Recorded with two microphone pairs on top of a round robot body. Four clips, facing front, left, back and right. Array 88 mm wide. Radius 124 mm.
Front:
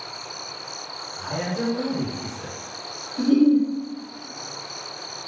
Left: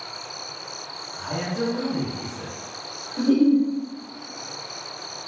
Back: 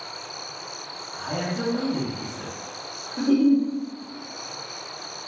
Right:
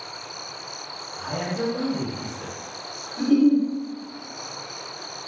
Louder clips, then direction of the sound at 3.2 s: Even, front 2 dB; 125° left.